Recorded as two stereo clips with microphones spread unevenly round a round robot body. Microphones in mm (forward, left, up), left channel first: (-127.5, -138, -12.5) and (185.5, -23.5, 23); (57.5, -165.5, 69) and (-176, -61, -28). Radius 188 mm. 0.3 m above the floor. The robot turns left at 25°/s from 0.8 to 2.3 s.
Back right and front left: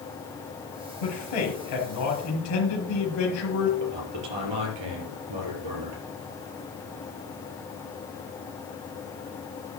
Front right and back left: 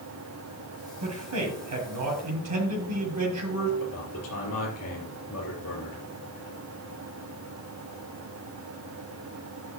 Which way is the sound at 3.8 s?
30° left.